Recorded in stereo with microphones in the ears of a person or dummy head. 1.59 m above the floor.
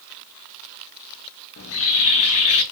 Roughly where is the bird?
Left.